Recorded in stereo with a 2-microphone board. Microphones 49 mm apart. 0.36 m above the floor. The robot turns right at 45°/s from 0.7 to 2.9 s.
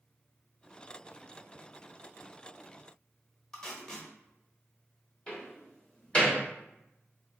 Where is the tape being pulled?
15° left (ahead or behind), 1.0 m.